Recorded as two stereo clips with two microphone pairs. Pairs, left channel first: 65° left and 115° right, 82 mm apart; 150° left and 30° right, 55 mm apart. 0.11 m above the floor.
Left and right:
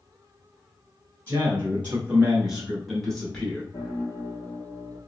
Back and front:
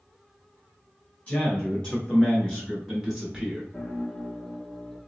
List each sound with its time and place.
1.3 s a man speaking: 160° right, 1.3 m; by 3.6 s 15° left, 1.1 m
3.7 s a piano: 65° left, 0.8 m